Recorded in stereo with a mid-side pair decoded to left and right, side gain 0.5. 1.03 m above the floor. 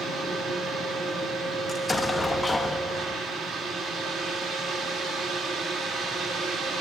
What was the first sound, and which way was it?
A fan, 70° right.